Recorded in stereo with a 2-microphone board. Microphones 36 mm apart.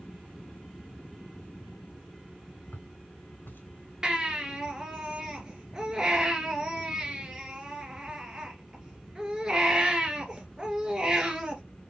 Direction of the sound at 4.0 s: 15° right (ahead or behind).